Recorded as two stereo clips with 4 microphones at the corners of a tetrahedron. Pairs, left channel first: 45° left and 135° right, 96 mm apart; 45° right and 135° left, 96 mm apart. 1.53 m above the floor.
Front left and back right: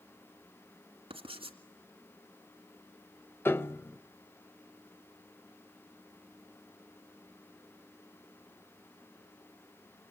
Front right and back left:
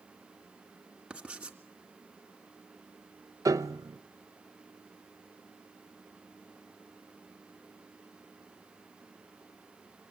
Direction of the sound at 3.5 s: 100° left.